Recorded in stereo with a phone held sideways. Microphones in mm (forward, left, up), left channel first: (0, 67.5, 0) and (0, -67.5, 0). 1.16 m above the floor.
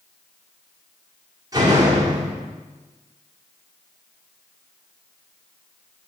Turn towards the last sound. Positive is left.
turn(degrees=-25)  # may be behind; listen again after turning